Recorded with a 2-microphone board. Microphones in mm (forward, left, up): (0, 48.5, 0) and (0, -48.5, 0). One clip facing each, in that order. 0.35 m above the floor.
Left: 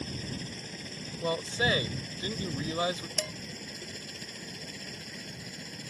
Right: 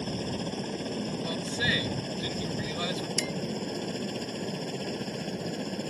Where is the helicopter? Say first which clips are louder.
Right 7 dB; 50° right (ahead or behind).